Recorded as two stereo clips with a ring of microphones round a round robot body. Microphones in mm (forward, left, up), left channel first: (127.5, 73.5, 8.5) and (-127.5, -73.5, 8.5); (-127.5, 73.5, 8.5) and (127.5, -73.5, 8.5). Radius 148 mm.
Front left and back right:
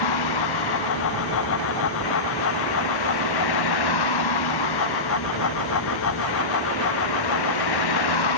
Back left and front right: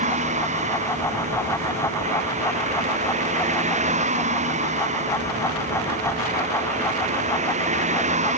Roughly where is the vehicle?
Ahead left.